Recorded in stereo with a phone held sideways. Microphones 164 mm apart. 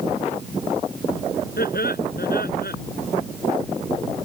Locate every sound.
1.6 s laughter: 70° left (ahead or behind)